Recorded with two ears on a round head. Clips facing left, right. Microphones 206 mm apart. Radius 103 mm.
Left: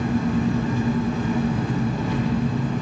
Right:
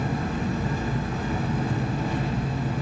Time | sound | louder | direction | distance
0.0 | an engine running | left 6 dB | 60° left (ahead or behind) | 9 m